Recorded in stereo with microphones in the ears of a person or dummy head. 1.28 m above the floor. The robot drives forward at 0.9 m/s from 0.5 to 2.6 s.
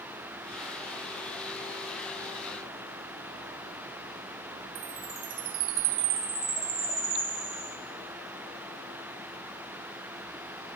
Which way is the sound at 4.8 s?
60° right (ahead or behind).